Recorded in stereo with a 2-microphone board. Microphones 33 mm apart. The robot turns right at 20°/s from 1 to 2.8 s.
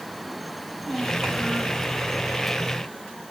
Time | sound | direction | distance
0.6 | a child speaking | 5° left (ahead or behind) | 5 m